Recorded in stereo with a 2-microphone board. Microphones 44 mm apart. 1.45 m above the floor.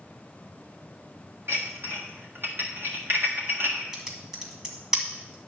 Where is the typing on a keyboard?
15° right (ahead or behind), 1.6 m.